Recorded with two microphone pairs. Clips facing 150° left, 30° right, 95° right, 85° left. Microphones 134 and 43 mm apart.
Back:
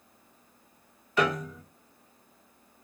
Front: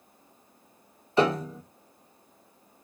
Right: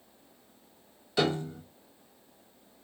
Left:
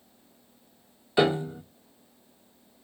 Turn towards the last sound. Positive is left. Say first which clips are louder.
# front 4 dB, left 5 dB
turn(degrees=20)